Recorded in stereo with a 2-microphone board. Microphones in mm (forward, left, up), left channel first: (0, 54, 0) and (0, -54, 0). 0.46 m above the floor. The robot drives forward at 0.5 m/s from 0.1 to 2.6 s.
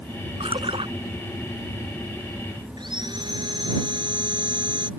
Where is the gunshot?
I don't hear a gunshot.